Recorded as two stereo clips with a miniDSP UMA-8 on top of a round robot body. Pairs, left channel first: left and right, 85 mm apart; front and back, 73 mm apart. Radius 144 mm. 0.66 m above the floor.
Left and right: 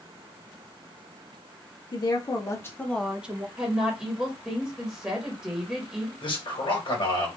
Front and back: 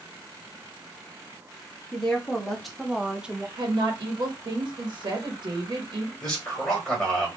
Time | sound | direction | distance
1.9 | a woman speaking | 80° left | 1.4 m
3.6 | a woman speaking | 170° right | 1.3 m
6.2 | a man speaking | 80° left | 1.8 m